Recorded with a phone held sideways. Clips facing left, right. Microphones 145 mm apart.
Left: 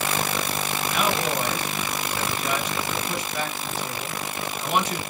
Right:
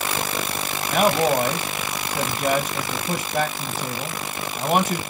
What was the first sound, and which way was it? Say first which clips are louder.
A man speaking: right 8 dB; 45° right (ahead or behind).